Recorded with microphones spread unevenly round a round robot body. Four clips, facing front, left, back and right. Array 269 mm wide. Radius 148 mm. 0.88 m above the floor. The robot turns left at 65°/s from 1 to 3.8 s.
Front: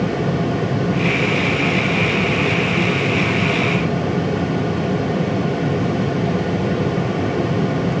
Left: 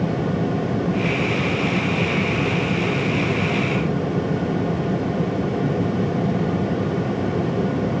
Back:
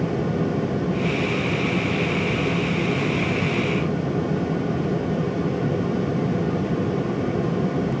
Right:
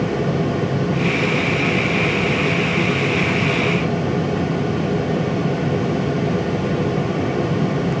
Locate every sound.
Only background noise.